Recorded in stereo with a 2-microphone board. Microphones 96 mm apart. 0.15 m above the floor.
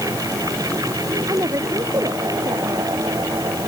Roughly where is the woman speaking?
Right.